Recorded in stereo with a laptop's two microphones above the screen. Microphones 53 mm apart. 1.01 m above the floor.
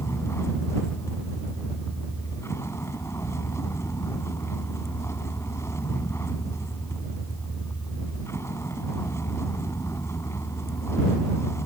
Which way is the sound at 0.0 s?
60° left (ahead or behind).